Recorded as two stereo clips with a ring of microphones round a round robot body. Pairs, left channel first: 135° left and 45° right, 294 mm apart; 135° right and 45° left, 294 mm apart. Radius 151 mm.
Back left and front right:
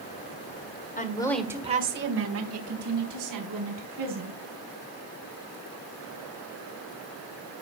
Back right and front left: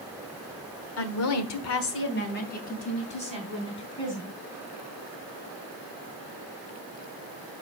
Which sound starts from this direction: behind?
A woman speaking, at 1.0 s.